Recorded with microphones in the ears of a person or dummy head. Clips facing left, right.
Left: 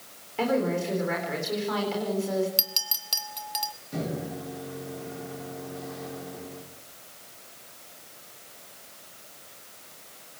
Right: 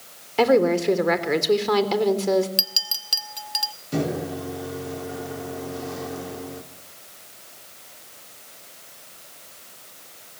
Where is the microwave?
65° right (ahead or behind), 2.5 m.